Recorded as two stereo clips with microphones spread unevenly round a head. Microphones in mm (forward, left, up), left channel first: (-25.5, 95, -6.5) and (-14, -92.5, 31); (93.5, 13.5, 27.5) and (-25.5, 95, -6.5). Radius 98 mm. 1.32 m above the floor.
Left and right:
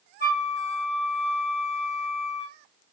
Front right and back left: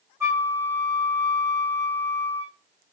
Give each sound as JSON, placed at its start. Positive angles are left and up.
{"t": 0.2, "sound": "a flute", "azimuth_deg": 65, "distance_m": 1.4}